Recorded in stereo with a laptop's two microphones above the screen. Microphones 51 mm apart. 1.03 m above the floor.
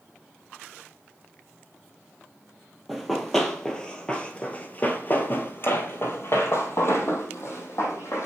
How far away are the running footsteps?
About 1.5 m.